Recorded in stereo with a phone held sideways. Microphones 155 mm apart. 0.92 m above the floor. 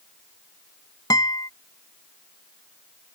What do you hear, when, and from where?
1.1 s a guitar: 25° left (ahead or behind)